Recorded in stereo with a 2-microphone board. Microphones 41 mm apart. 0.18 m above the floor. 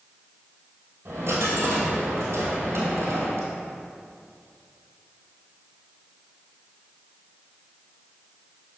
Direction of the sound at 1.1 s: 75° right (ahead or behind).